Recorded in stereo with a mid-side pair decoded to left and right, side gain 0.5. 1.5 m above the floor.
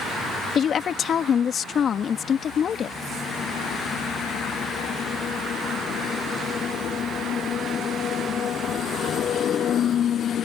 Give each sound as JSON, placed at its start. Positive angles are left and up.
{"t": 0.6, "sound": "a woman speaking", "azimuth_deg": 50}